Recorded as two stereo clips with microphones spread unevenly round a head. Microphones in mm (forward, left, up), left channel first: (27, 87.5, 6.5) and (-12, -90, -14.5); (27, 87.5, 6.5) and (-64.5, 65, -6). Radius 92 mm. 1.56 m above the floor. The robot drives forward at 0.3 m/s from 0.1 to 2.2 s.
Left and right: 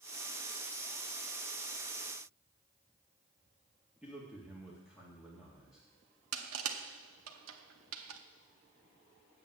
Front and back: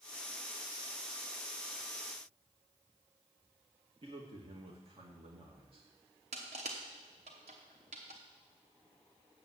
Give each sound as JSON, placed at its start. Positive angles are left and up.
{"t": 4.0, "sound": "a man speaking", "azimuth_deg": 170, "distance_m": 1.9}
{"t": 6.3, "sound": "crushing", "azimuth_deg": -120, "distance_m": 0.8}